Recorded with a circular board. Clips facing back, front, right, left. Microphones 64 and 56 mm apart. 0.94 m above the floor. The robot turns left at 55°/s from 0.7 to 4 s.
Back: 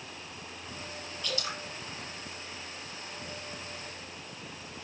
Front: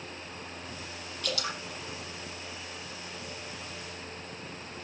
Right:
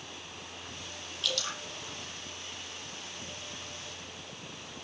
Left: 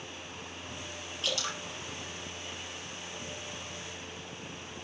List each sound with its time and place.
1.2 s dripping: 30° left, 7.5 m; by 1.6 s 10° left, 7.5 m